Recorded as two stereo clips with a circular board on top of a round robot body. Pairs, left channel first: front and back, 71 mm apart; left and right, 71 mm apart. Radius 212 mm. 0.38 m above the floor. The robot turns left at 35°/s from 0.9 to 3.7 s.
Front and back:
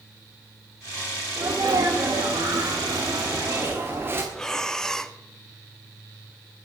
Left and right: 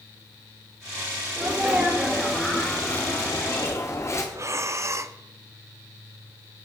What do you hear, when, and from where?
1.4 s a sneeze: 150° right, 1.6 m; by 4.2 s 130° left, 1.6 m
4.3 s breathing: 80° right, 1.0 m